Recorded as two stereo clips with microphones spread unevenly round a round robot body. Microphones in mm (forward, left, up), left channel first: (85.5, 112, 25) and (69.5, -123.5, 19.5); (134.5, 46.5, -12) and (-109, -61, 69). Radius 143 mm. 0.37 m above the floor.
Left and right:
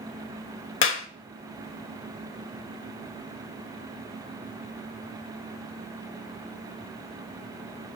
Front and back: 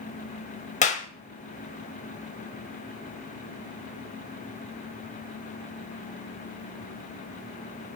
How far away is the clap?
About 1.3 m.